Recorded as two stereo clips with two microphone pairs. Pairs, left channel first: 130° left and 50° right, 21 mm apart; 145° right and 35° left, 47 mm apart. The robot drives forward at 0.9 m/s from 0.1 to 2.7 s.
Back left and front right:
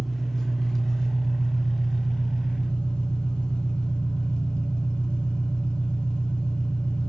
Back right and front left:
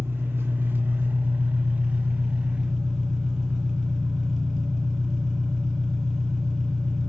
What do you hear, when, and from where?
0.0 s an engine running: 55° left, 2.5 m; by 7.1 s 125° left, 2.5 m